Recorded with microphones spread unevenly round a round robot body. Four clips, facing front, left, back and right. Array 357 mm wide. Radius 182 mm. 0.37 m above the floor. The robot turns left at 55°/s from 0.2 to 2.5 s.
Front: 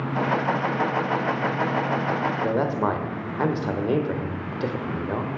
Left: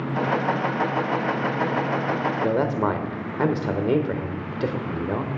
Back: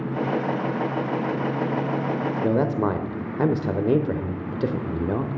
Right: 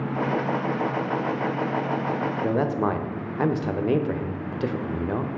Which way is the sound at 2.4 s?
170° left.